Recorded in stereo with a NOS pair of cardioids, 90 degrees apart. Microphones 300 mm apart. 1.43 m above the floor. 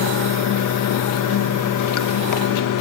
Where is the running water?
70° left, 1.6 m.